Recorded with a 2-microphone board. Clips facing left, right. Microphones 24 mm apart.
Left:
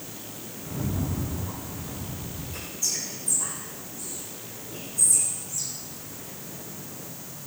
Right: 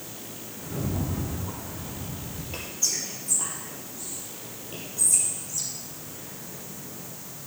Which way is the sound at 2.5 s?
40° right (ahead or behind).